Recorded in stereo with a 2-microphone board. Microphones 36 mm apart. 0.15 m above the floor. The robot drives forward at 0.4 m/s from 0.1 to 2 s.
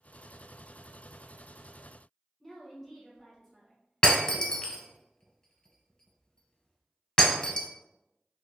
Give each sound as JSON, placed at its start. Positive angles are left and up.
{"t": 2.4, "sound": "a woman speaking", "side_deg": 10, "distance_m": 1.0}
{"t": 4.0, "sound": "breaking glass", "side_deg": 25, "distance_m": 0.6}